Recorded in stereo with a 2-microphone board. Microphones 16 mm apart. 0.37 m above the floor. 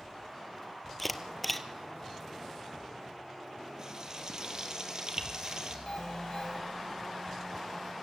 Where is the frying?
35° right (ahead or behind), 3.5 m.